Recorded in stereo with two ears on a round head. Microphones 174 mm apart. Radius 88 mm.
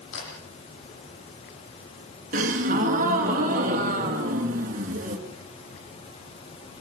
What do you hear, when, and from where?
0.1 s a camera shutter: 65° left (ahead or behind), 9.5 m
2.3 s a gasp: 40° right (ahead or behind), 2.5 m